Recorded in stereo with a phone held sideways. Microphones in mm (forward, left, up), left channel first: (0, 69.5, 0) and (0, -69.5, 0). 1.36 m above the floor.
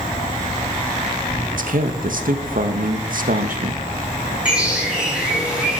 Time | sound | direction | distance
0.0 | an insect | 85° left | 3 m
1.5 | a man speaking | 85° right | 1.6 m
4.5 | a bird | 10° right (ahead or behind) | 7.5 m